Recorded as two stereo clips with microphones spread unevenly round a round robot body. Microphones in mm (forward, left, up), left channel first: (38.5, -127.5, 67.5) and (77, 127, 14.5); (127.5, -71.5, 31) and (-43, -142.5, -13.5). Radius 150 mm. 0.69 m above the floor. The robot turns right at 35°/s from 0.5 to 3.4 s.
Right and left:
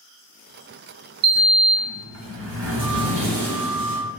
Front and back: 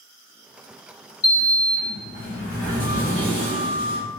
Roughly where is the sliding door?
Ahead left.